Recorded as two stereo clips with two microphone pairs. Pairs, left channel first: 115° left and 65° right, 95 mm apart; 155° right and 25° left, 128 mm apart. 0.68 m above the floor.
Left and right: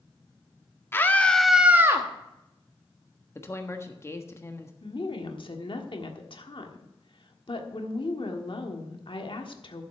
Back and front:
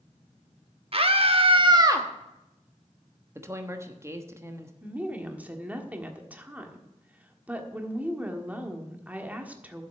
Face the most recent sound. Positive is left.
turn(degrees=100)